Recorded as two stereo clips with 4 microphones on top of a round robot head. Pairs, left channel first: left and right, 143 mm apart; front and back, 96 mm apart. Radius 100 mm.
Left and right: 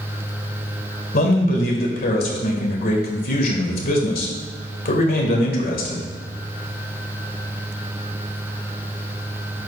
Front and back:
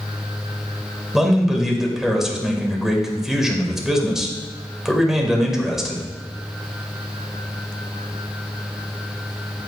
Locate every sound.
1.1 s a man speaking: 95° left, 2 m